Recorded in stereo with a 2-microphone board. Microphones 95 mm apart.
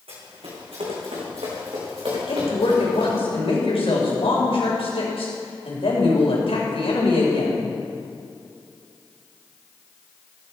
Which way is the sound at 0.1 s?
80° right.